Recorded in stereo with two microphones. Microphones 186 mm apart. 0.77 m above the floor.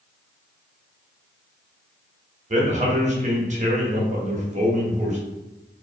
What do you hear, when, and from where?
2.5 s a man speaking: 40° right (ahead or behind), 0.6 m